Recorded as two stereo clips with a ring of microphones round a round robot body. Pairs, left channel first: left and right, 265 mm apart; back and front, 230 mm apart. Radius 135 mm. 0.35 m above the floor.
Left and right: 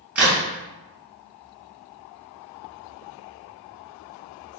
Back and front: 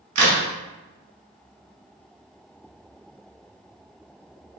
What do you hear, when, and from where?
0.1 s a crack: 5° right, 1.2 m